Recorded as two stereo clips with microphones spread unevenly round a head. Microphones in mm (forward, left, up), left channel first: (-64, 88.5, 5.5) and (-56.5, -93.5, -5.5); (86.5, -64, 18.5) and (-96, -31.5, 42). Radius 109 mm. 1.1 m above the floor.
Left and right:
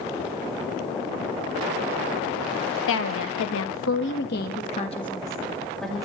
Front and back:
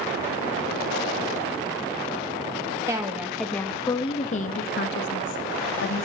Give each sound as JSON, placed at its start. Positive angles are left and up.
{"t": 2.9, "sound": "a woman speaking", "azimuth_deg": 95, "distance_m": 1.7}